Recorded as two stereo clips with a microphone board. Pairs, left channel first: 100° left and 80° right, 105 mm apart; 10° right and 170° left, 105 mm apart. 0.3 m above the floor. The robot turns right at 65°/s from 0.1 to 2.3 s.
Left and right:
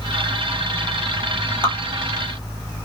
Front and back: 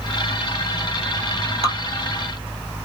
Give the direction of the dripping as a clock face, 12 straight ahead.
6 o'clock.